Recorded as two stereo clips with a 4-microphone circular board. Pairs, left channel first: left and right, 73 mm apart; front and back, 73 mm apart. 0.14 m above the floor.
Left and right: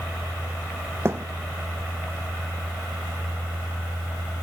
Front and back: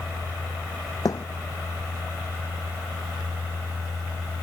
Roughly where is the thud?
Ahead right.